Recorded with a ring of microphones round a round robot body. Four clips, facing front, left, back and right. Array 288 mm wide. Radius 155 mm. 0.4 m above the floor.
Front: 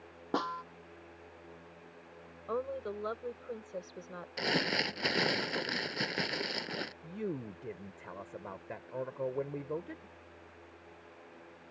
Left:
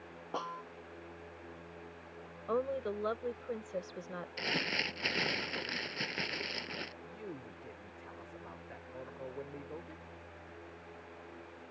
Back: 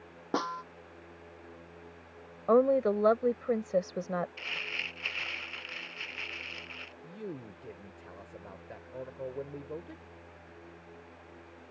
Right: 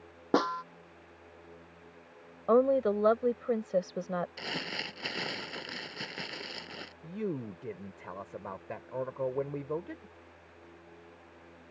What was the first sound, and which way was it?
A snare drum, 95° right.